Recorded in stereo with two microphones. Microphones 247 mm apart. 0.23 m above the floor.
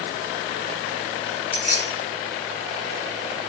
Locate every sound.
1.5 s keys jangling: 5° right (ahead or behind), 1.3 m